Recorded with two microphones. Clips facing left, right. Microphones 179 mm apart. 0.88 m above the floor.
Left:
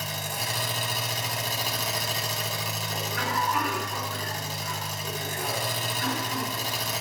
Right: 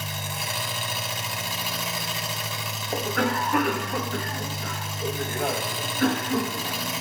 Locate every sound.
0.0 s an engine running: 40° left (ahead or behind), 1.9 m
2.9 s a cough: 60° right (ahead or behind), 1.2 m